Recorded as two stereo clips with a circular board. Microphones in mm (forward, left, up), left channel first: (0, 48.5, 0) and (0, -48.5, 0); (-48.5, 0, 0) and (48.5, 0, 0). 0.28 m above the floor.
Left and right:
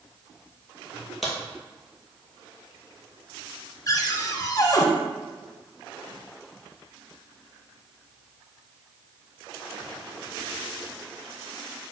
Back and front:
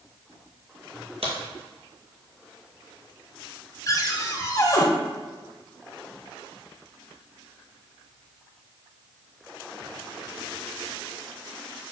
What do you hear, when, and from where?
1.2 s a crack: straight ahead, 1.5 m
3.9 s a cupboard door: 135° left, 0.7 m